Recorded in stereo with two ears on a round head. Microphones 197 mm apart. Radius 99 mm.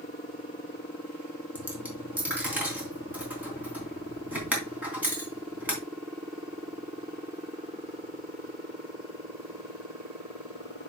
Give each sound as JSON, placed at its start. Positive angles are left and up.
{"t": 1.6, "sound": "a dropped coin", "side_deg": -10, "distance_m": 3.5}